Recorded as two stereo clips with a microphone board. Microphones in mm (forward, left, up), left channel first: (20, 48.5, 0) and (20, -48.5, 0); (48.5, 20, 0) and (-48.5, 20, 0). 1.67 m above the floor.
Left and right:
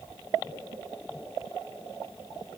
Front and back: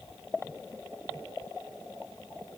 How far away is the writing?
I don't hear writing.